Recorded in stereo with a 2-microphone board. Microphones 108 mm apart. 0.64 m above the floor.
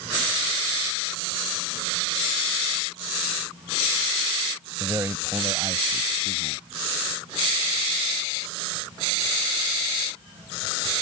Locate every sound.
4.8 s a man speaking: 20° right (ahead or behind); by 6.6 s 50° right (ahead or behind)